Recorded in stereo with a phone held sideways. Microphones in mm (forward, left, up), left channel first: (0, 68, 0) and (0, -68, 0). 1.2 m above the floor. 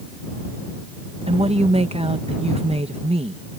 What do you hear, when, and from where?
1.3 s a woman speaking: 50° right (ahead or behind)